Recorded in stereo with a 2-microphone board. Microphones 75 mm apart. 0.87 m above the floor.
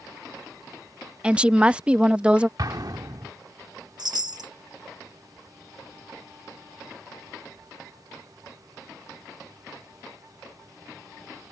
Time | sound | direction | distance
1.2 | a woman speaking | 15° right (ahead or behind) | ?
2.6 | an explosion | 60° right (ahead or behind) | ?
4.0 | a chime | 60° right (ahead or behind) | ?